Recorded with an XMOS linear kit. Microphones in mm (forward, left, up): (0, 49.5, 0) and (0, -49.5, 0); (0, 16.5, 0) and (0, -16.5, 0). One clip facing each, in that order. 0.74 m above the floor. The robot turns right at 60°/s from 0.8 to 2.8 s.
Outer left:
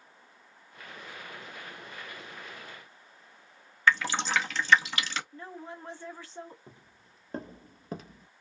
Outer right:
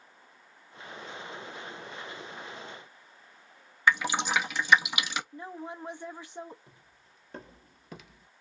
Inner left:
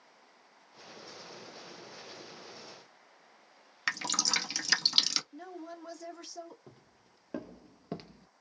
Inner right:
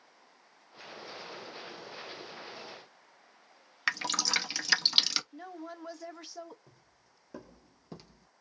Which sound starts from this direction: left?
Footsteps, at 6.7 s.